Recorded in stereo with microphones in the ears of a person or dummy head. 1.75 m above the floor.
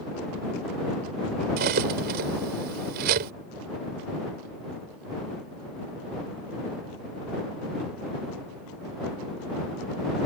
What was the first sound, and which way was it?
Cutlery clinking, 60° right (ahead or behind).